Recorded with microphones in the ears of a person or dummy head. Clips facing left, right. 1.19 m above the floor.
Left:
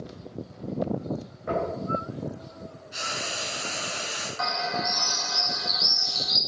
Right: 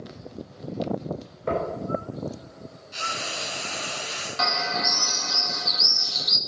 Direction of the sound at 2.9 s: 5° left (ahead or behind).